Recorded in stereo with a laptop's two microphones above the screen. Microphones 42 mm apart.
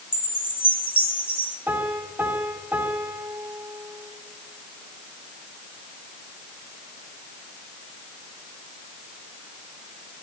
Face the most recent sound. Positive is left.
turn(degrees=-65)  # may be behind; listen again after turning